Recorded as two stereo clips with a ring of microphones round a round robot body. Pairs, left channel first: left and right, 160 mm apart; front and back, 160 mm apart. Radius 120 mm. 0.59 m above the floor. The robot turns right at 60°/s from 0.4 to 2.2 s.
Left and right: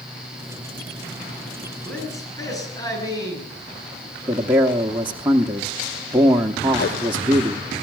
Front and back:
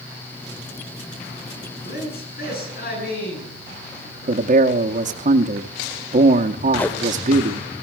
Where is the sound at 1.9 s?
Straight ahead, 9.5 m; by 4.4 s 20° left, 9.5 m.